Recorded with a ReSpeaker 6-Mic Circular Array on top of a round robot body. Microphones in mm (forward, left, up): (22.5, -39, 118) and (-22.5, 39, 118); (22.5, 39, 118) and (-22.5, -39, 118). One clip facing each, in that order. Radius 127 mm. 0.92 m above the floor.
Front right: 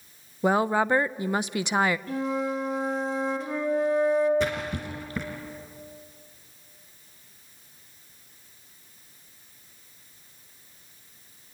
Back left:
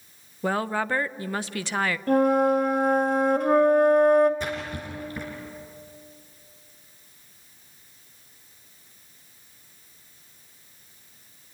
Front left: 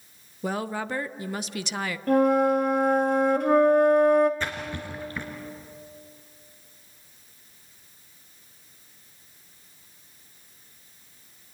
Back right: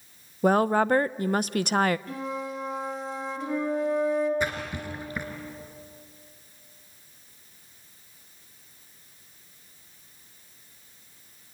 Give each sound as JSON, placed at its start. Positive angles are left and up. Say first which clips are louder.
{"t": 0.4, "sound": "a woman speaking", "louder": "front right 4 dB, back right 9 dB", "azimuth_deg": -130, "distance_m": 0.7}
{"t": 2.1, "sound": "a flute", "louder": "back left 9 dB, front left 13 dB", "azimuth_deg": 85, "distance_m": 2.0}
{"t": 4.4, "sound": "a splash", "louder": "front right 3 dB, back right 2 dB", "azimuth_deg": -40, "distance_m": 2.5}